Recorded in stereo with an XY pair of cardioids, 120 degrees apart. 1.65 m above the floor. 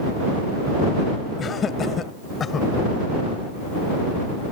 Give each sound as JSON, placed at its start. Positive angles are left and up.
{"t": 1.4, "sound": "laughter", "azimuth_deg": 40}